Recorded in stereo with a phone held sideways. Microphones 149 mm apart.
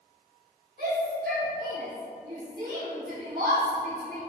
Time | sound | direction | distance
0.8 | a shout | 70° right (ahead or behind) | 4 m